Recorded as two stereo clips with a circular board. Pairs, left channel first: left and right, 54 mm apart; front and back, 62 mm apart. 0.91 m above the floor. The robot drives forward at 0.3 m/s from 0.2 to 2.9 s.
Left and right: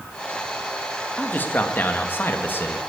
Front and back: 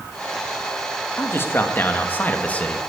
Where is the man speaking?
45° left, 1.5 m; by 2.8 s 65° left, 1.2 m.